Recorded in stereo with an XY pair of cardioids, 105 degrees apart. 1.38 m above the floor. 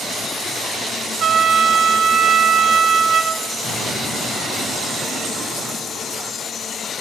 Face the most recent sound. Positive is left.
turn(degrees=50)